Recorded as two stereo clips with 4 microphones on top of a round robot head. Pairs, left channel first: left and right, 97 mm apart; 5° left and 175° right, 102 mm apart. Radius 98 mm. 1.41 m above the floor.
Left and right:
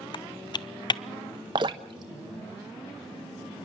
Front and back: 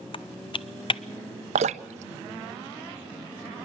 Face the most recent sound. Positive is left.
turn(degrees=-145)